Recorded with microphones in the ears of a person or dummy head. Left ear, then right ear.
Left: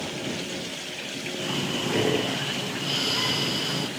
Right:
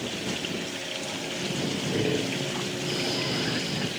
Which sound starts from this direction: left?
Breathing, at 1.4 s.